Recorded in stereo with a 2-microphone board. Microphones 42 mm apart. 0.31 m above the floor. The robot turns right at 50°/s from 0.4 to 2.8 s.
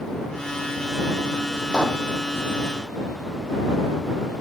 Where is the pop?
20° left (ahead or behind); by 2.0 s 35° left (ahead or behind).